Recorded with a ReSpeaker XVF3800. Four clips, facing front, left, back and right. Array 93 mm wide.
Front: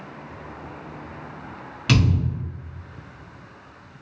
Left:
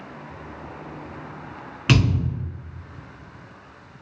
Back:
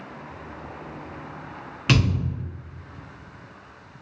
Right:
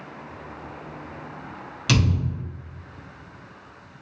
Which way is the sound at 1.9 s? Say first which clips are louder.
Left 3 dB, front 1 dB; 115° left.